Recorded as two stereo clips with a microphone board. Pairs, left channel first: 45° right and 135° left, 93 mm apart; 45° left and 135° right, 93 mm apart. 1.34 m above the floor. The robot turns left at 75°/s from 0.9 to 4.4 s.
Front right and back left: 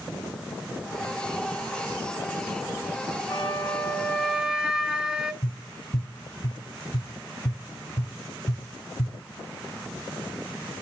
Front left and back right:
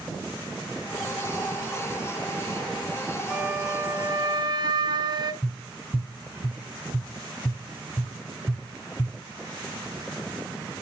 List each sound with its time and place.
3.3 s a flute: 65° right, 1.2 m; by 5.3 s 150° right, 1.2 m
5.4 s tapping: straight ahead, 7 m